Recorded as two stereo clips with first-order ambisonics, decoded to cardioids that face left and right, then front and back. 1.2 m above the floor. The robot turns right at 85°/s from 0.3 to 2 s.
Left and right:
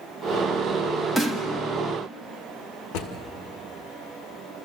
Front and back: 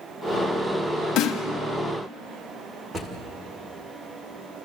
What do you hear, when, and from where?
1.2 s a snare drum: 10° left, 1.7 m; by 1.4 s 35° left, 1.7 m
2.9 s a drawer: 105° left, 1.9 m